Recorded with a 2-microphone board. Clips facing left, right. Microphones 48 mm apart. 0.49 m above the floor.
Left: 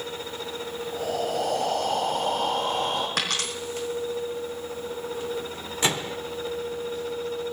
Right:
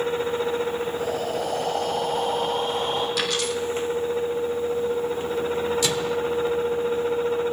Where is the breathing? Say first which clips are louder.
Right 1 dB; 80° left, 9 m.